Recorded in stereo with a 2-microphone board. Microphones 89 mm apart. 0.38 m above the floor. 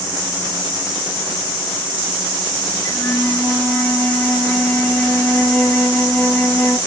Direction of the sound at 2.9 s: 20° left (ahead or behind).